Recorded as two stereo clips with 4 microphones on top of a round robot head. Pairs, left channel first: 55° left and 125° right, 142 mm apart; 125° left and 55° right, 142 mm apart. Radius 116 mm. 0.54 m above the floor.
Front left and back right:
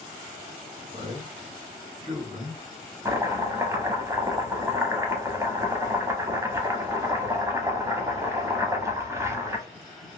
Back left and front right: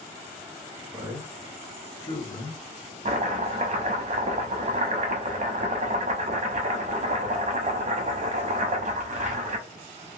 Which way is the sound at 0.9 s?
110° right.